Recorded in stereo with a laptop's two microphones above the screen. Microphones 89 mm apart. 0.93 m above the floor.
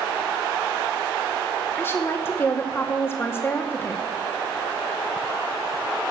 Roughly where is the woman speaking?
Left.